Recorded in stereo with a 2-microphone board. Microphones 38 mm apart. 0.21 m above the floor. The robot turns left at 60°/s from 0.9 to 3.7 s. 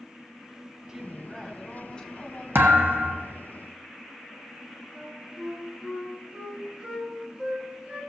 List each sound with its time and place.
0.9 s a woman speaking: 160° right, 1.7 m; by 2.5 s 110° left, 1.7 m
2.5 s a thud: 100° right, 1.3 m; by 3.3 s 145° right, 1.3 m
4.9 s a flute: 30° right (ahead or behind), 2.5 m